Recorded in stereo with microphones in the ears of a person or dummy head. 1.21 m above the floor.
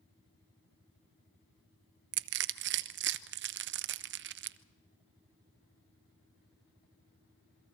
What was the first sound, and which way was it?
Crushing, 60° right (ahead or behind).